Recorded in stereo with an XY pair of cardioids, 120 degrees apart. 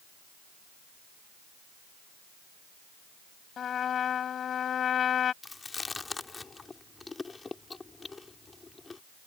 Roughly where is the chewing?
Ahead left.